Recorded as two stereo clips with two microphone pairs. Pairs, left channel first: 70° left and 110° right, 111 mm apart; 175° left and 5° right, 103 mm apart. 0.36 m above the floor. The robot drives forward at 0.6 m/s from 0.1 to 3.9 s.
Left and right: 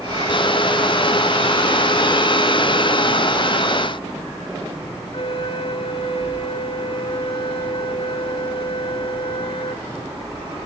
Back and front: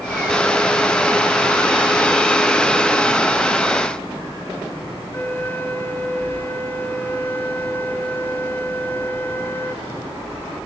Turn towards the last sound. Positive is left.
turn(degrees=110)